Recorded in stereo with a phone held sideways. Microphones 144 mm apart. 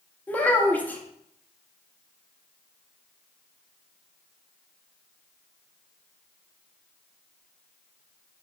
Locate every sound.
0.3 s a child speaking: 10° left (ahead or behind), 0.6 m